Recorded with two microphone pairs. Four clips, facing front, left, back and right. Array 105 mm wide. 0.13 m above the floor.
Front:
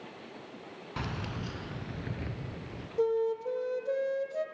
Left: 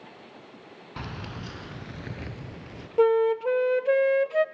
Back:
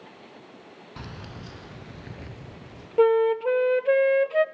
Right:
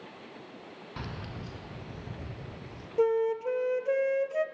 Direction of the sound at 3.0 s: 150° left.